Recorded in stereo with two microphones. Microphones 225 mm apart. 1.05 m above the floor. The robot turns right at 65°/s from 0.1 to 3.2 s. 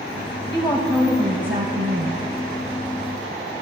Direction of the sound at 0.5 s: 155° left.